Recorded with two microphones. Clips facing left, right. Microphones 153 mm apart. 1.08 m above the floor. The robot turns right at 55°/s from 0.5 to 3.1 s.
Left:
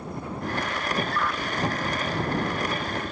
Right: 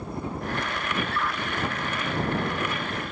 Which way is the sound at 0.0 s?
30° right.